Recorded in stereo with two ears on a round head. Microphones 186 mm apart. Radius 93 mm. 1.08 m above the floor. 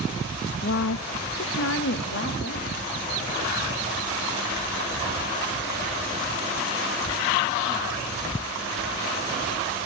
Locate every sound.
0.6 s a woman speaking: 40° left (ahead or behind), 0.6 m; by 2.8 s 50° left (ahead or behind), 2.5 m